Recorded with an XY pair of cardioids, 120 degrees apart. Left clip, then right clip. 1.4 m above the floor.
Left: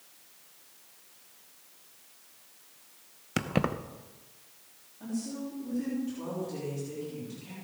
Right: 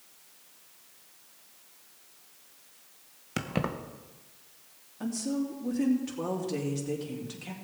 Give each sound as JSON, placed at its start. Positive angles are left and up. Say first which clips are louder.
{"t": 3.4, "sound": "keys jangling", "louder": "left 2 dB", "azimuth_deg": 15, "distance_m": 0.8}
{"t": 5.0, "sound": "a woman speaking", "louder": "right 5 dB", "azimuth_deg": -65, "distance_m": 3.5}